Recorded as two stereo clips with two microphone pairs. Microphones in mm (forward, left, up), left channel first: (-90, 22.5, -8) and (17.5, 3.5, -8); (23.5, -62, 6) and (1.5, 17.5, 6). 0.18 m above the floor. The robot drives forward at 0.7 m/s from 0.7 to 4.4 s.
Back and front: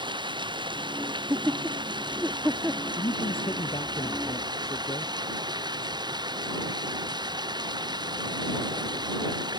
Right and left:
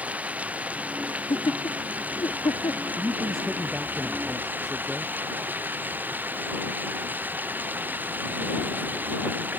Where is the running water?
35° left; by 9.6 s 40° left.